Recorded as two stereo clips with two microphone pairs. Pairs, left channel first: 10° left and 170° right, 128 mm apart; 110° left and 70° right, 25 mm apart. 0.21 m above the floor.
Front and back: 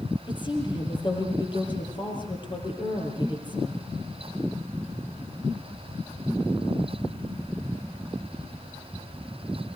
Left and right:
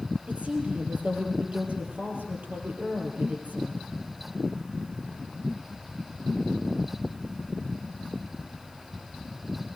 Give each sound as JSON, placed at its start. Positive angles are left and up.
{"t": 0.3, "sound": "a woman speaking", "azimuth_deg": -40, "distance_m": 7.0}